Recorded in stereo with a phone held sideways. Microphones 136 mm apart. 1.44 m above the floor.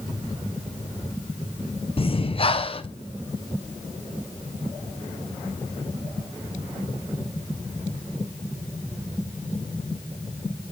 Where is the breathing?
40° left (ahead or behind), 0.8 m.